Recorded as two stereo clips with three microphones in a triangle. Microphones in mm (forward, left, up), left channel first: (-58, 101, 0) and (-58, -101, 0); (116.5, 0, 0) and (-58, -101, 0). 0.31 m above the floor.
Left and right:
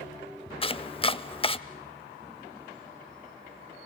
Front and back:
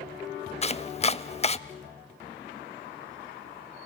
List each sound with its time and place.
0.6 s chopping: 55° left, 0.6 m